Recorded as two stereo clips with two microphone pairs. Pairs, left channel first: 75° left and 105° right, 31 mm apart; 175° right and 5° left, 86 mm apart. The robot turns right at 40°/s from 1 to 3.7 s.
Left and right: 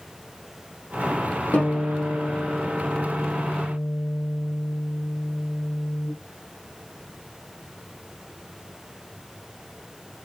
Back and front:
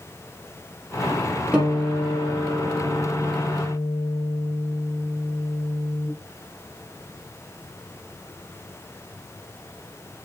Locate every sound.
1.5 s a guitar: 75° left, 4 m; by 6.1 s 165° left, 4 m